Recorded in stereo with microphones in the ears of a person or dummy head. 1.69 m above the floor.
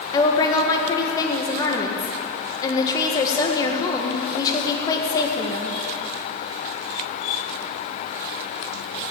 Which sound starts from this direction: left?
A woman speaking, at 0.1 s.